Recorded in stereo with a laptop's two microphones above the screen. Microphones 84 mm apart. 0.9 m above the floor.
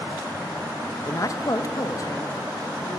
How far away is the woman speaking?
About 0.8 m.